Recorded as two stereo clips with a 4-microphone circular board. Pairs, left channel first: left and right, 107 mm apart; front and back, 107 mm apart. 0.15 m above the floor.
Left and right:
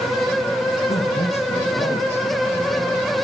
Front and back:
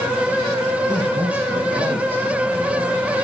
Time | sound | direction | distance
0.9 | a man speaking | 70° left | 7 m